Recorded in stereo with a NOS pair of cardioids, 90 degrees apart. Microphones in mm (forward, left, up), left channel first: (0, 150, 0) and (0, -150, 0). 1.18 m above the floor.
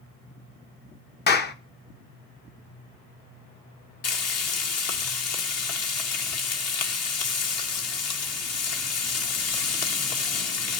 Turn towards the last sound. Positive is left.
turn(degrees=55)